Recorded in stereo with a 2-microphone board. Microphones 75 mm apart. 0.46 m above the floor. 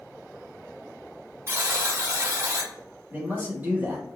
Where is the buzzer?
35° right (ahead or behind), 0.7 m.